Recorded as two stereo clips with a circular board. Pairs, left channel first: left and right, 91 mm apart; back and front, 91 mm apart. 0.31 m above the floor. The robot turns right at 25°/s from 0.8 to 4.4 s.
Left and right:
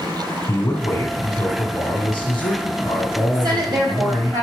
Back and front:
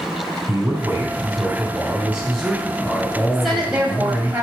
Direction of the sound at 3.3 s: 90° right.